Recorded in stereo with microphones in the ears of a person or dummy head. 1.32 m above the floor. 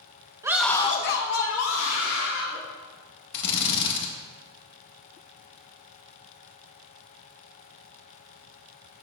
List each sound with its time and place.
0.4 s a scream: 15° right (ahead or behind), 0.9 m; by 2.6 s 75° left (ahead or behind), 3 m
3.3 s a drill: 60° left (ahead or behind), 1.2 m